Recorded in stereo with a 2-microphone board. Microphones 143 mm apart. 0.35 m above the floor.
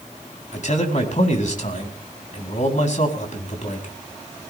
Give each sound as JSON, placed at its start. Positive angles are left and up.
{"t": 0.5, "sound": "a man speaking", "side_deg": 60, "distance_m": 3.0}